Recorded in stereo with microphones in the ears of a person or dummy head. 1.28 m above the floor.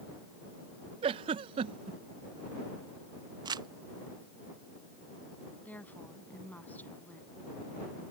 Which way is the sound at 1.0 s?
30° right (ahead or behind).